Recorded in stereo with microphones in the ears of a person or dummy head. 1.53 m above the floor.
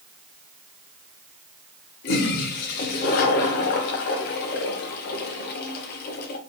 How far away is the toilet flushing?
About 0.6 m.